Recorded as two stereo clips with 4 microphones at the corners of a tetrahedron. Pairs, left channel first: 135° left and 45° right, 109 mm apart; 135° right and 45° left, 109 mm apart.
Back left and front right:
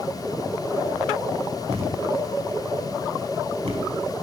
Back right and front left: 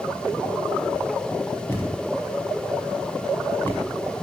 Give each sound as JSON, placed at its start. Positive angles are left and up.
{"t": 1.7, "sound": "a thud", "azimuth_deg": -65, "distance_m": 4.0}